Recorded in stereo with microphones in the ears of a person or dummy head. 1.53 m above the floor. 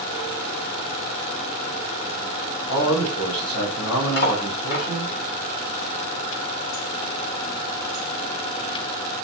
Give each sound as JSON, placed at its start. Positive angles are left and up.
{"t": 2.7, "sound": "a man speaking", "side_deg": 60, "distance_m": 6.0}
{"t": 4.2, "sound": "cutlery clinking", "side_deg": 60, "distance_m": 3.0}